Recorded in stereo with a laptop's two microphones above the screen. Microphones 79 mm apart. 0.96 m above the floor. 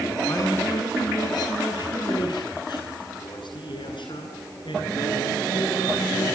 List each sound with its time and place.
0.3 s a man speaking: 45° left (ahead or behind), 8 m; by 6.3 s 85° left, 13 m